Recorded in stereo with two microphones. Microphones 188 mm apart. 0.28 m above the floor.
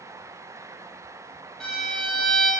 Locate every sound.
1.6 s a violin: centre (ahead or behind), 2 m